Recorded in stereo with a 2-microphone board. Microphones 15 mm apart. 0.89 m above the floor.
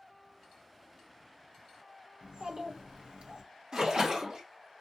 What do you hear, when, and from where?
2.2 s a child speaking: 65° right (ahead or behind), 0.8 m
3.7 s a splash: 55° right (ahead or behind), 1.0 m